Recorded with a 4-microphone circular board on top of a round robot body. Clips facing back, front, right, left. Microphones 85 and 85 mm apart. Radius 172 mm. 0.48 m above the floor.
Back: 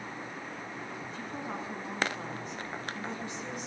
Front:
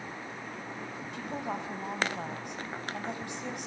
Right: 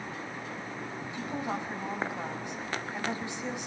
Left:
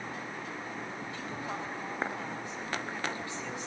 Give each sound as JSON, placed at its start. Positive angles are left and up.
{"t": 1.1, "sound": "a woman speaking", "azimuth_deg": -20, "distance_m": 5.0}